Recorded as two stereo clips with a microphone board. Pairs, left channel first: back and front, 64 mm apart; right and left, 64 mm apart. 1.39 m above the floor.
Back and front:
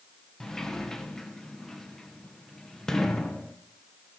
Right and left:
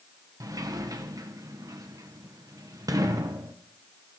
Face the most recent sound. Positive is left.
turn(degrees=95)